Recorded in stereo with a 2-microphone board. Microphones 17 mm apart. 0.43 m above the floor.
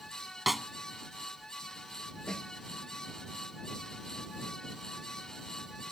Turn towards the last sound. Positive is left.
turn(degrees=55)  # may be behind; listen again after turning